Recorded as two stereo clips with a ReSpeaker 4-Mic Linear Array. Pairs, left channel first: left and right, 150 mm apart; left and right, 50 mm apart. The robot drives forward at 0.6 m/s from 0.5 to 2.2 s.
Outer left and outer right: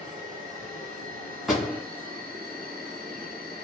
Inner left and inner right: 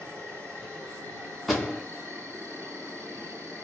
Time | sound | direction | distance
0.0 | an insect | 60° right (ahead or behind) | 1.5 m
1.5 | a door slam | centre (ahead or behind) | 1.0 m